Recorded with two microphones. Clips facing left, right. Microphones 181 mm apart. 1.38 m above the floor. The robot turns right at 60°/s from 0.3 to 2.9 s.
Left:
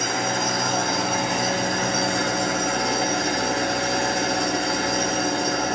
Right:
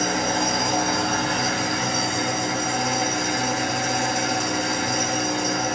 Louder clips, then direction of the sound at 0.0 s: Right 2 dB; 40° right.